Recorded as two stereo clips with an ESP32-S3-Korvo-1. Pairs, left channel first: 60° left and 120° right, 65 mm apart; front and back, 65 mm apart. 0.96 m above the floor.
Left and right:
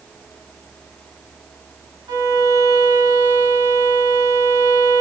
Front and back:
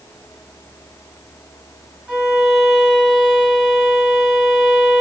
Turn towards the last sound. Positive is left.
turn(degrees=-100)